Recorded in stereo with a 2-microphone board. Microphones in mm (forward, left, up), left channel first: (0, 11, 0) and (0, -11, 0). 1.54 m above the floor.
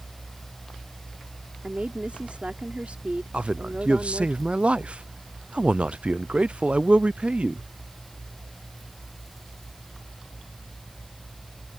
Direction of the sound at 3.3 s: 65° right (ahead or behind).